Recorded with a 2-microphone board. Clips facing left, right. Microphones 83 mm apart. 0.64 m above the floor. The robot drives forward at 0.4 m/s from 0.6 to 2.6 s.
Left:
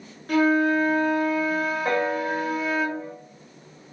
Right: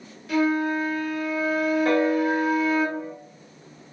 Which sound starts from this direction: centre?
A piano, at 1.9 s.